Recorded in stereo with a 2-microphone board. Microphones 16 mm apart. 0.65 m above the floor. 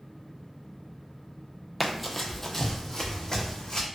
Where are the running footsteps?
5° right (ahead or behind), 0.7 m; by 3.9 s 40° left (ahead or behind), 1.4 m.